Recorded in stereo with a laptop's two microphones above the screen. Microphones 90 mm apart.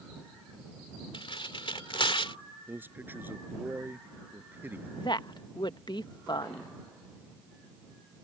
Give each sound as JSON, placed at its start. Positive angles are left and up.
{"t": 1.1, "sound": "tearing paper", "side_deg": 70}
{"t": 2.7, "sound": "a man speaking", "side_deg": -25}
{"t": 5.0, "sound": "a woman speaking", "side_deg": 55}